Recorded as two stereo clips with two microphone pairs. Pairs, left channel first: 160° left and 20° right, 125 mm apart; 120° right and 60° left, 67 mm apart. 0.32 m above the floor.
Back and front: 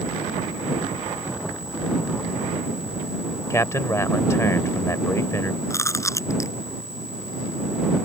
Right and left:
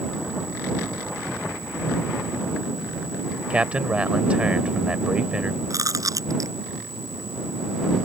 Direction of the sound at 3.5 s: 120° left.